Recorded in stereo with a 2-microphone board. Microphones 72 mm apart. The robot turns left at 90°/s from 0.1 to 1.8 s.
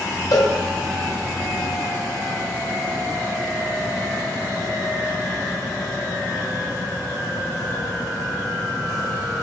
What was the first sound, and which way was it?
A cowbell, 65° left (ahead or behind).